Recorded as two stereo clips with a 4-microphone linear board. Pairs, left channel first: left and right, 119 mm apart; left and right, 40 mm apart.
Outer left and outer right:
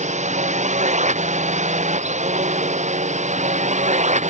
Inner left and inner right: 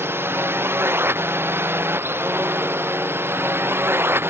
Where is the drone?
85° right; by 4.3 s 80° right.